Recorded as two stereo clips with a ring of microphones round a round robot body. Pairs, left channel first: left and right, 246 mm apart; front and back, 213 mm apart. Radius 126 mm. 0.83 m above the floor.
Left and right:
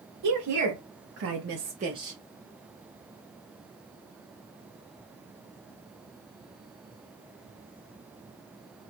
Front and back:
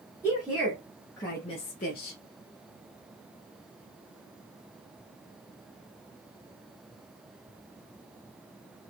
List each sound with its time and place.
0.2 s a woman speaking: 95° right, 1.6 m; by 2.2 s 10° right, 0.9 m